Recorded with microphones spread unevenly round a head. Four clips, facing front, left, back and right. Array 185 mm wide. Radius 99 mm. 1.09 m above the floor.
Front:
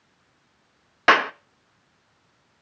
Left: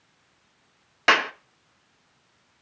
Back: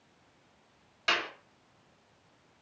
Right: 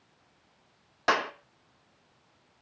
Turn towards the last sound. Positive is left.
turn(degrees=15)